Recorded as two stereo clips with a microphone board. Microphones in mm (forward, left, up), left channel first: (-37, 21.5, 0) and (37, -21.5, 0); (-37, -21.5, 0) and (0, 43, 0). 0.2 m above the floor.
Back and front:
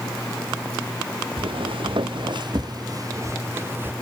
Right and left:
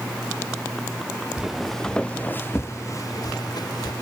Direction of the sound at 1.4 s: 25° right.